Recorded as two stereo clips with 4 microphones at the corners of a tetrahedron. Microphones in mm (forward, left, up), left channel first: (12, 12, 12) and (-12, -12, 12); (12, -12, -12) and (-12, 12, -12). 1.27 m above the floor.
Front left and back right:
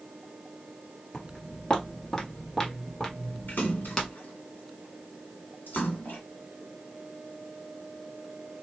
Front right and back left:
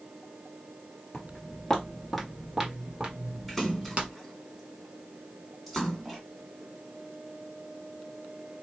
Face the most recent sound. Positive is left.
turn(degrees=45)